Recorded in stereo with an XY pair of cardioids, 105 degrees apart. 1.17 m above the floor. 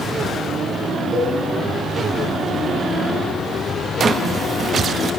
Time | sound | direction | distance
1.1 | a cowbell | 40° right | 8 m
4.0 | a drawer | 45° right | 0.8 m